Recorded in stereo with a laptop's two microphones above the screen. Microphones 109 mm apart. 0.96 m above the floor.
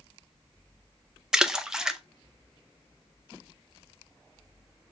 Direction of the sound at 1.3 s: 5° right (ahead or behind).